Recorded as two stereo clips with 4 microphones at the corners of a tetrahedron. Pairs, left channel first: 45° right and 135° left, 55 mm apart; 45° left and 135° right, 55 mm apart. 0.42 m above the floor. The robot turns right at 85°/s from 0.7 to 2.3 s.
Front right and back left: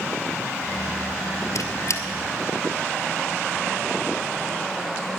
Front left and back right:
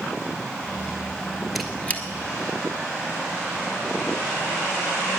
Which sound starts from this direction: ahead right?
A squeak, at 1.6 s.